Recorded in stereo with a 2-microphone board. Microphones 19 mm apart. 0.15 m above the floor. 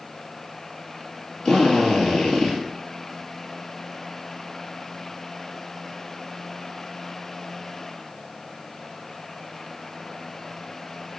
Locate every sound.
1.4 s a drill: 65° left (ahead or behind), 3 m